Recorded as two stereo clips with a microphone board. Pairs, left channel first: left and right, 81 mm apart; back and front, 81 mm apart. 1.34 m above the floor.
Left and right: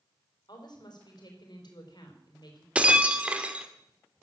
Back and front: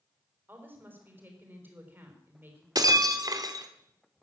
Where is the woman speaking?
65° left, 4 m.